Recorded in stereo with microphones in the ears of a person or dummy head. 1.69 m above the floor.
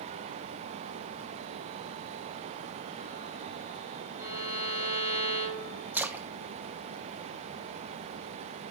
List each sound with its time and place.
4.2 s a violin: 10° right (ahead or behind), 3.5 m
5.9 s a splash: 5° right (ahead or behind), 0.7 m